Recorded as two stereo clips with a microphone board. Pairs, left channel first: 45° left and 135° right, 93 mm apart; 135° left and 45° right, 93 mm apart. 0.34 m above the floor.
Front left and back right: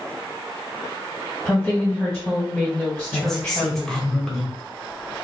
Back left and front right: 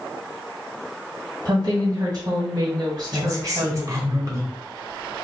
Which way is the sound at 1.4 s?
45° right.